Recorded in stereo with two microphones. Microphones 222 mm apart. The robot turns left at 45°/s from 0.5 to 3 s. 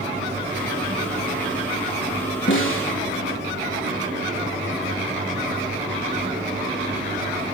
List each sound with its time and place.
2.5 s a snare drum: 55° left (ahead or behind), 4 m; by 2.9 s 75° left (ahead or behind), 4 m